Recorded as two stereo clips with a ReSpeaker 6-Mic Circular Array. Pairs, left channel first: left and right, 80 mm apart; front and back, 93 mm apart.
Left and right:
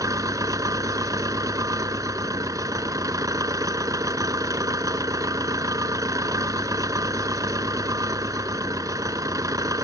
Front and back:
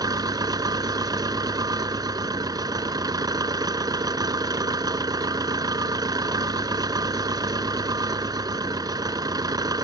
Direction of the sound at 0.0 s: 135° right.